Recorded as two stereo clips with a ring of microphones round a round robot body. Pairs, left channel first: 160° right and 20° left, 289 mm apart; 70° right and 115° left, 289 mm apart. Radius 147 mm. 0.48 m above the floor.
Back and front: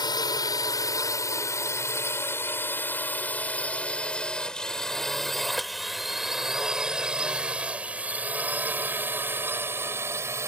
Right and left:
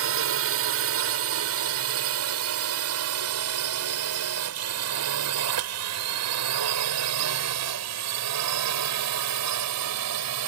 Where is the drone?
130° left; by 10.5 s 100° left.